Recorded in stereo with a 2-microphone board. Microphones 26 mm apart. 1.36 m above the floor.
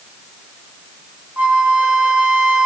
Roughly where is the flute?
Right.